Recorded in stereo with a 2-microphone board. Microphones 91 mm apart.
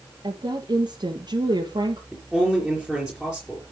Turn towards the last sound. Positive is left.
turn(degrees=5)  # may be behind; listen again after turning